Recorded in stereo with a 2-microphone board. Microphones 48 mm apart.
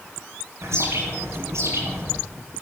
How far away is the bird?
About 4.5 m.